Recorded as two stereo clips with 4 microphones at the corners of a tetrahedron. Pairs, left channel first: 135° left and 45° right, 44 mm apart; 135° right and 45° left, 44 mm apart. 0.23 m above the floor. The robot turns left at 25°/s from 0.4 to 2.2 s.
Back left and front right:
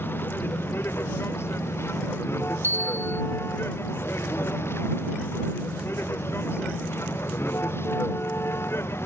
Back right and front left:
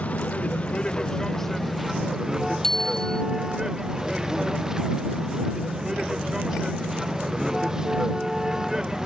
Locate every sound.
0.0 s a vehicle: 165° left; by 9.1 s 120° left
2.6 s a bicycle bell: 55° right